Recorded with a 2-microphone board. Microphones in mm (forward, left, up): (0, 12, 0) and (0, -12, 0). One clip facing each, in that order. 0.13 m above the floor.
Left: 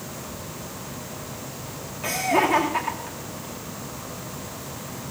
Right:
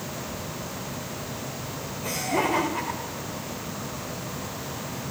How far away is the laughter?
About 9 m.